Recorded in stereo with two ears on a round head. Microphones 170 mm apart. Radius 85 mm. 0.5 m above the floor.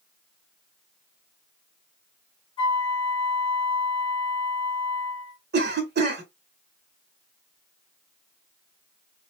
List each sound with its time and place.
2.6 s a flute: 25° left (ahead or behind), 1.3 m
5.5 s a cough: 55° right (ahead or behind), 1.3 m